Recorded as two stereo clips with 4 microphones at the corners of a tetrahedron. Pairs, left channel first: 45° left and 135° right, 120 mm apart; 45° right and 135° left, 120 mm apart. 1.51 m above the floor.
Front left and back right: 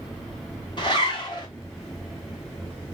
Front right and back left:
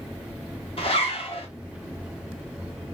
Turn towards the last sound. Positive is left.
turn(degrees=-5)